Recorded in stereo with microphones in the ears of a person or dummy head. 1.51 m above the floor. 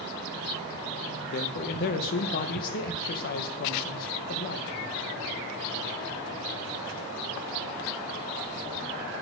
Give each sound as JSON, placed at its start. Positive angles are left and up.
{"t": 1.3, "sound": "a man speaking", "side_deg": 55, "distance_m": 1.0}